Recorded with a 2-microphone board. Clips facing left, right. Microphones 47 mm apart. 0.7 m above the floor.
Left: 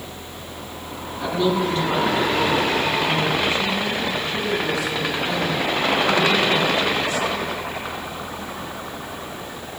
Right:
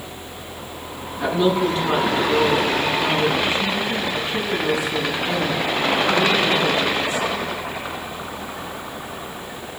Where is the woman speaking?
20° right (ahead or behind), 7.5 m.